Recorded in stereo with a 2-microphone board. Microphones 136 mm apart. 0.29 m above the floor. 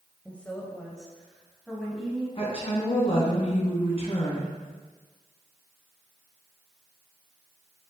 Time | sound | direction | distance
0.2 | a woman speaking | 10° left (ahead or behind) | 1.1 m
2.4 | a woman speaking | 45° left (ahead or behind) | 2.5 m